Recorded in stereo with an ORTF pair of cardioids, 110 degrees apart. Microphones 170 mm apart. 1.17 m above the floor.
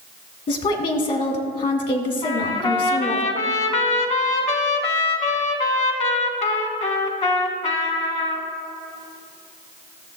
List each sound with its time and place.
0.5 s a woman speaking: 50° left, 1.9 m
2.2 s a trumpet: 40° left, 1.3 m